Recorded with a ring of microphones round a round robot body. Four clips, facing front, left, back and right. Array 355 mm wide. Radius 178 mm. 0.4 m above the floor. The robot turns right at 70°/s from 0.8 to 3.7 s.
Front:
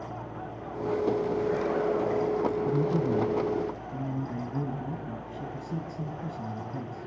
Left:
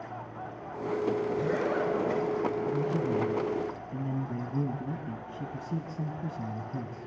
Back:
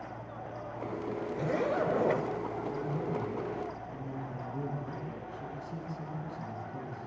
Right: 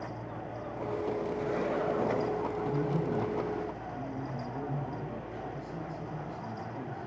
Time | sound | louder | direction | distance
1.3 | a zipper | left 3 dB, front 3 dB | 135° left | 7 m
2.6 | a man speaking | left 2 dB, front 8 dB | 15° right | 3 m